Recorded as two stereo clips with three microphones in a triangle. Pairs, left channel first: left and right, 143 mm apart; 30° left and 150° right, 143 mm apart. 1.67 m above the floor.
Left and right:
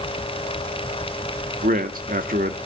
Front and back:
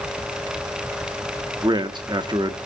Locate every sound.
1.6 s a man speaking: 90° right, 1.8 m